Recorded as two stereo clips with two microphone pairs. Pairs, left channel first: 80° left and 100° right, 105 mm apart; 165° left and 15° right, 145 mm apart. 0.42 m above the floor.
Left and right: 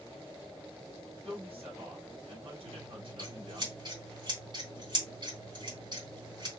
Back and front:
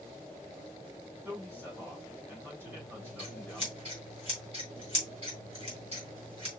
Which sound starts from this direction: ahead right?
Scissors, at 2.7 s.